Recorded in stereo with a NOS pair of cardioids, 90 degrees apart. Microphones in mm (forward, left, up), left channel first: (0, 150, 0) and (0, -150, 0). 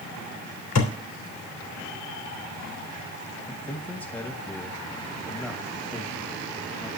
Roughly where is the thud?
Left.